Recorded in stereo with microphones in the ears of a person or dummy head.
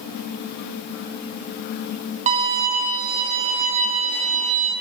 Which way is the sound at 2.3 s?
30° right (ahead or behind).